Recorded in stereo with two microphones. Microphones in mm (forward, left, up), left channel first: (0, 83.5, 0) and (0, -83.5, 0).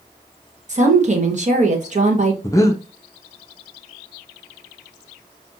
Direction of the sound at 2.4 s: 20° left (ahead or behind).